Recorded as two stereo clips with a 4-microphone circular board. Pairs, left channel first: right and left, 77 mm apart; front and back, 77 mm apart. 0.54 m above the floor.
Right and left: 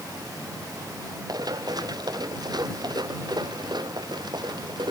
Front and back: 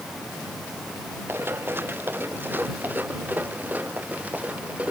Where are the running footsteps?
120° left; by 4.9 s 110° left.